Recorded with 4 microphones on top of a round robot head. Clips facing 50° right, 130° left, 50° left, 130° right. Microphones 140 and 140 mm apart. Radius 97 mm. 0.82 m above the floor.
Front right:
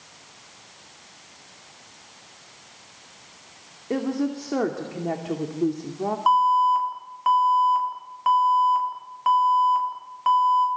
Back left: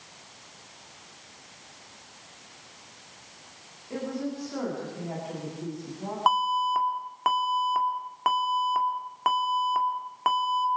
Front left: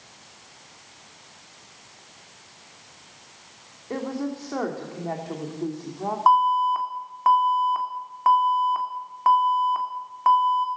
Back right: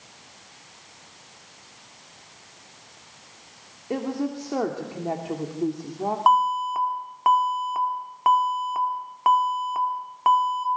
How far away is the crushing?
I don't hear crushing.